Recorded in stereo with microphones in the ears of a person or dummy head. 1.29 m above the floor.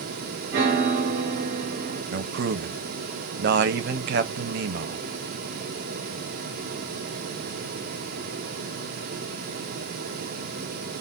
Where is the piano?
65° right (ahead or behind), 1.4 m.